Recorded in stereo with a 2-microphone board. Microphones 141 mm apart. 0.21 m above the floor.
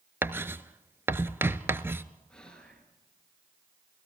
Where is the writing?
15° right (ahead or behind), 0.7 m.